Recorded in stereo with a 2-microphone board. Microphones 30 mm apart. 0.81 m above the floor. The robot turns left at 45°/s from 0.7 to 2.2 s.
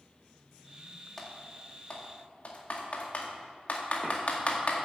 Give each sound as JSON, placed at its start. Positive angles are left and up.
{"t": 1.2, "sound": "typing on a keyboard", "side_deg": 10, "distance_m": 1.9}